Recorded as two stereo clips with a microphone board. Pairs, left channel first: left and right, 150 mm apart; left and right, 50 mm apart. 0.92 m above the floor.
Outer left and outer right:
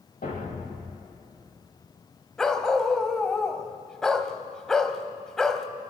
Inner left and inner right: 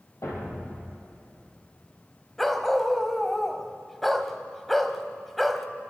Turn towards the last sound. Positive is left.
turn(degrees=5)  # may be behind; listen again after turning